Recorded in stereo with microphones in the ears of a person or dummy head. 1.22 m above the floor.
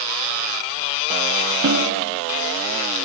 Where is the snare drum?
75° right (ahead or behind), 1.9 m.